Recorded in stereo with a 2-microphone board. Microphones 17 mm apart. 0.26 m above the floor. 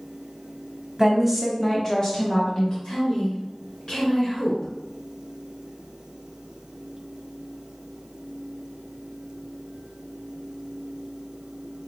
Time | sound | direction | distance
1.0 | a woman speaking | 25° right (ahead or behind) | 1.3 m
2.8 | a woman speaking | 45° left (ahead or behind) | 2 m